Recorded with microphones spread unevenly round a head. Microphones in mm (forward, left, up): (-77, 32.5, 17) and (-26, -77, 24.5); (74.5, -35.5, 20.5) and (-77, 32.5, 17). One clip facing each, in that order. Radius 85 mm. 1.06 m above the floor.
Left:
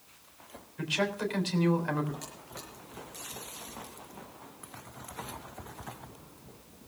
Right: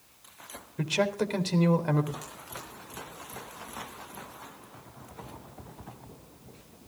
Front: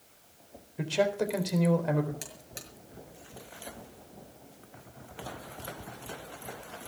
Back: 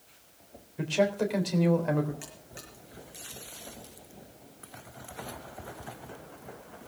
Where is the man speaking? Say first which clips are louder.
Right 4 dB, back 1 dB; 110° right, 3.5 m.